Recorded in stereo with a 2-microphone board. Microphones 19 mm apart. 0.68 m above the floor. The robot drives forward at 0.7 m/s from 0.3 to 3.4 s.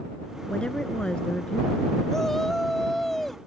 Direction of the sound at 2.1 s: 25° left (ahead or behind).